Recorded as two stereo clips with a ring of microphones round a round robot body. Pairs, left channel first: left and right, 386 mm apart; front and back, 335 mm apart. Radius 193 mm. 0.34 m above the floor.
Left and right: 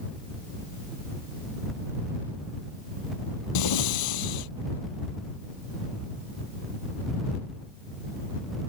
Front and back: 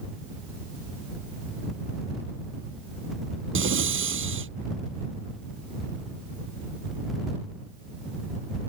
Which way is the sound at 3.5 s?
125° left.